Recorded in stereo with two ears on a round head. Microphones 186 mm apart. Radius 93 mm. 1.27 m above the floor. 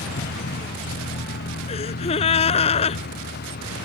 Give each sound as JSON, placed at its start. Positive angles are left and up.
{"t": 0.0, "sound": "a vehicle", "side_deg": 50}
{"t": 1.7, "sound": "a gasp", "side_deg": 30}